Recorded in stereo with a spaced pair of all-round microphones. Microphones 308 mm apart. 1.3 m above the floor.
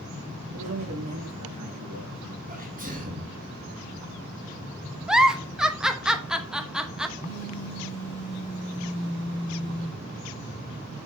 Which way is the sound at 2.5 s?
25° right (ahead or behind).